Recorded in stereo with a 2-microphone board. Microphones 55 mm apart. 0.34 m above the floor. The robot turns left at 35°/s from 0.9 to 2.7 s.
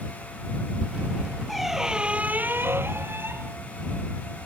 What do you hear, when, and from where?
1.5 s a squeak: 5° left; by 3.6 s 40° right